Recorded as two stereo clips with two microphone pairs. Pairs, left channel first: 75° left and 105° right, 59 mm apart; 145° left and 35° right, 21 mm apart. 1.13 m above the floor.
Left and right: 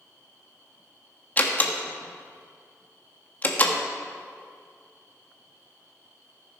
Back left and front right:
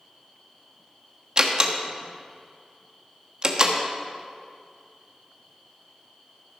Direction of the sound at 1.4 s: 15° left.